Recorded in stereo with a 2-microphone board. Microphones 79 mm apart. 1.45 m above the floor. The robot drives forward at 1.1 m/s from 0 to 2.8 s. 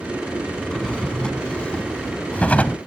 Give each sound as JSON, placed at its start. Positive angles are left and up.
{"t": 0.6, "sound": "a drawer", "side_deg": 10}